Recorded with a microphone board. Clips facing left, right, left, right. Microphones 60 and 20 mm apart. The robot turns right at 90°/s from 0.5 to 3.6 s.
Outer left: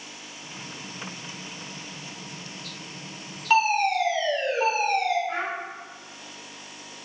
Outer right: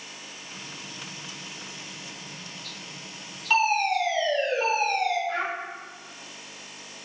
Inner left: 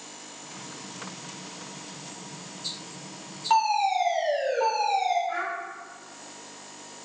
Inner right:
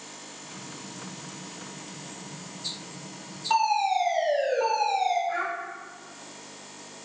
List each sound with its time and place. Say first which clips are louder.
3.5 s a fire alarm: outer left 2 dB, inner left 1 dB; 15° left (ahead or behind), 2.0 m
5.3 s a child speaking: outer right 1 dB, inner right 1 dB; 15° left (ahead or behind), 1.6 m